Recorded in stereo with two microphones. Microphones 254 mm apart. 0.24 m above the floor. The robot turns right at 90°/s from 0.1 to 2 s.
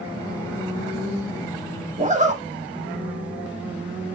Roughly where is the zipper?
Right.